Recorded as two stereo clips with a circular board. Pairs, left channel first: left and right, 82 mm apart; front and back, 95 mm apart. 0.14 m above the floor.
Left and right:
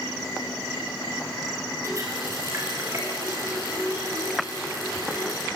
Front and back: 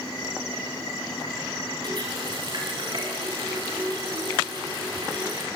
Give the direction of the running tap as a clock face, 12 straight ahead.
5 o'clock.